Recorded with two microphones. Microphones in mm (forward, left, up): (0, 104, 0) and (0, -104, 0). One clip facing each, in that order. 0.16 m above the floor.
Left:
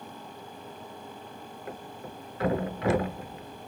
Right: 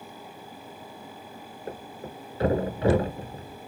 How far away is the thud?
About 0.8 m.